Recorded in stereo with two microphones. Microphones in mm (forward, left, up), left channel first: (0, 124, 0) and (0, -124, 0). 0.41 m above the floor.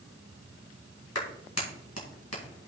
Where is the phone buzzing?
I don't hear a phone buzzing.